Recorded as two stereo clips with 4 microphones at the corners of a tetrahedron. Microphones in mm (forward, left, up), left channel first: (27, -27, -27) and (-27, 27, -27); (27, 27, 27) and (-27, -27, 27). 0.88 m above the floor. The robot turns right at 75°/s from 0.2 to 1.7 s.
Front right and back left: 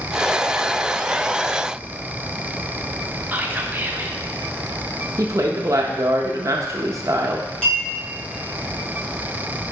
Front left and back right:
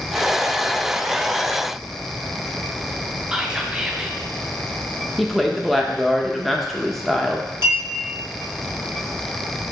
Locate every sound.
3.3 s whispering: 155° left, 0.7 m
5.2 s a woman speaking: 135° left, 0.7 m
7.6 s a clink: 35° left, 2.5 m